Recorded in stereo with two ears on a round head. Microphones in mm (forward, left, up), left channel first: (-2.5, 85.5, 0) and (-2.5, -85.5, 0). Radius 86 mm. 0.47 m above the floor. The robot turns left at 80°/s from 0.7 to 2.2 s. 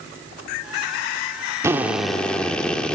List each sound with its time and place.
1.6 s a drill: 15° right (ahead or behind), 1.2 m; by 3.0 s 5° left (ahead or behind), 1.2 m